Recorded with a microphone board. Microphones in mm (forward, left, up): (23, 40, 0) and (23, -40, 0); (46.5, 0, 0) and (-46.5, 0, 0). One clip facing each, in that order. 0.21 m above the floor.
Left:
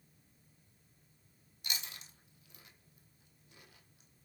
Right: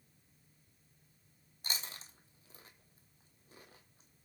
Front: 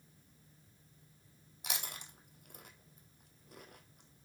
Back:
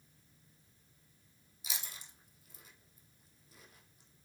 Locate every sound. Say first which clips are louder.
1.6 s chewing: right 1 dB, front 4 dB; 35° right, 1.3 m